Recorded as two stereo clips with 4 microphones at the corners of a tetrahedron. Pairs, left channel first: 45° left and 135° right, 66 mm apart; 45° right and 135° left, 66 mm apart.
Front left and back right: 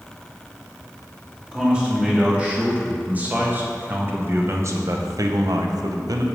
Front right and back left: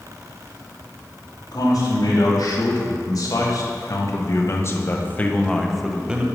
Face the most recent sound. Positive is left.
turn(degrees=-155)